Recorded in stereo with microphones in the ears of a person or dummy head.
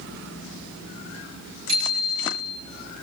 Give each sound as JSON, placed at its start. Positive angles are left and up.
{"t": 1.7, "sound": "a bicycle bell", "side_deg": -70, "distance_m": 8.5}